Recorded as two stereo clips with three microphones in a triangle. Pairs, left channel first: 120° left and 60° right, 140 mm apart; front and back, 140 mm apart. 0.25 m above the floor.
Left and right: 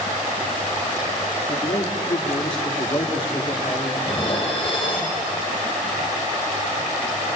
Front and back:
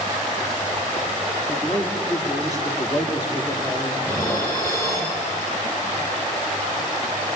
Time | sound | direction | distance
1.5 | a man speaking | 70° left | 4.5 m
4.0 | dishes clattering | 70° left | 5.5 m